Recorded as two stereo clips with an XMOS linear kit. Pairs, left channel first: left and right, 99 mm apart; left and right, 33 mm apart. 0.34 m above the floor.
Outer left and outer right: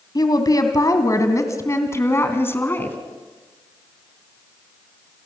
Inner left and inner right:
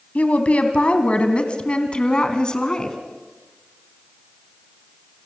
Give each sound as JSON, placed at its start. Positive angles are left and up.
{"t": 0.1, "sound": "a woman speaking", "side_deg": 45, "distance_m": 2.5}